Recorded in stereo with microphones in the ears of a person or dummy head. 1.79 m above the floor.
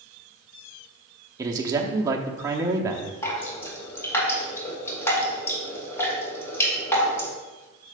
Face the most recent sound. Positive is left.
turn(degrees=15)  # may be behind; listen again after turning